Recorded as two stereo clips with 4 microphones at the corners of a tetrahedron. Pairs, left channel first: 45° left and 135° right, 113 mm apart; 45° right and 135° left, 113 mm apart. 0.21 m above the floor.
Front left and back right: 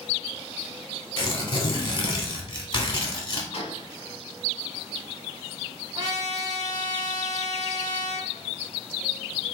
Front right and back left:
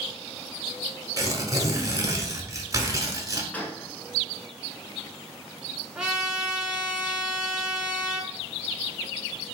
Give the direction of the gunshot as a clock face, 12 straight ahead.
11 o'clock.